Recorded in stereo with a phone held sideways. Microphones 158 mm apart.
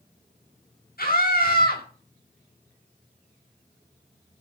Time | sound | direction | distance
1.0 | a scream | 75° left (ahead or behind) | 8.5 m